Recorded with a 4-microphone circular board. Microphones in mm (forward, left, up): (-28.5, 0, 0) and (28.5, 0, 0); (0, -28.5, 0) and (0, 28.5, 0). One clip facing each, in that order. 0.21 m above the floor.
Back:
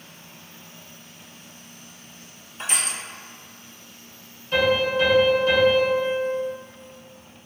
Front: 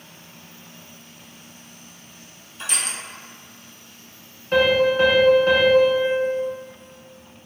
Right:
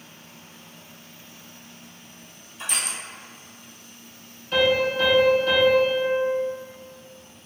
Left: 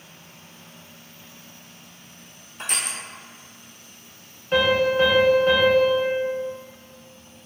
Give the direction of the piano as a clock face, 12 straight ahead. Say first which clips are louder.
Front 4 dB, left 2 dB; 11 o'clock.